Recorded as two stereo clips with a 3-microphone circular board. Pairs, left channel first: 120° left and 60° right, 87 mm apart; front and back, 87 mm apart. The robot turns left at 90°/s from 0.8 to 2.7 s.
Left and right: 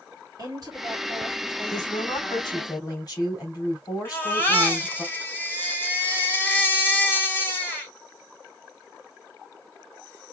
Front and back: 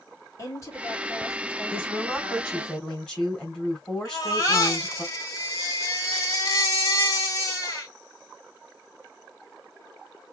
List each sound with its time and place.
0.4 s a woman speaking: 45° right, 1.9 m; by 2.7 s 145° left, 1.9 m
1.7 s a woman speaking: 170° left, 3 m; by 5.0 s 80° left, 3 m
4.0 s a baby crying: 50° left, 1.6 m